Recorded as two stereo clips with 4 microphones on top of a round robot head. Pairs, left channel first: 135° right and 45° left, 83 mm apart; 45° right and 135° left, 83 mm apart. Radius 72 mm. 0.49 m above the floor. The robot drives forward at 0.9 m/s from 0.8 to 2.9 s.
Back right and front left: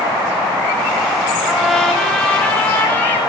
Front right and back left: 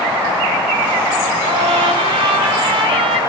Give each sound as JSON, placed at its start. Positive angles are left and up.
{"t": 1.4, "sound": "a trumpet", "azimuth_deg": 130, "distance_m": 1.2}